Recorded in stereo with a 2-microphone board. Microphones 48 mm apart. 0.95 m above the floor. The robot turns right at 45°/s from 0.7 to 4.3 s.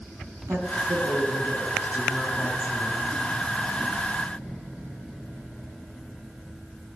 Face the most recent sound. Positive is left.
turn(degrees=65)